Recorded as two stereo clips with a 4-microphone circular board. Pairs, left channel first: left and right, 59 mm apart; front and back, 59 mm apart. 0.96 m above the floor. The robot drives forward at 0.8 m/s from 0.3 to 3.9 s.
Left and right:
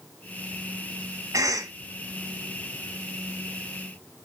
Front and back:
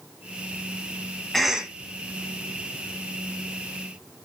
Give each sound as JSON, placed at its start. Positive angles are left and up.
{"t": 1.3, "sound": "a cough", "azimuth_deg": -85, "distance_m": 0.8}